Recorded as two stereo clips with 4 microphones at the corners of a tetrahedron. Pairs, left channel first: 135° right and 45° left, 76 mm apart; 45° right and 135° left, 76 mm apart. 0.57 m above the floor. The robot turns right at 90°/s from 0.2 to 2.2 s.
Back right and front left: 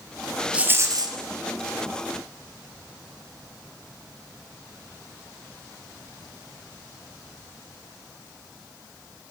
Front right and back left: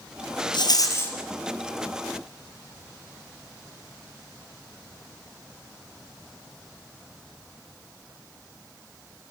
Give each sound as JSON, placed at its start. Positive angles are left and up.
{"t": 0.5, "sound": "a rattle", "azimuth_deg": -30, "distance_m": 2.5}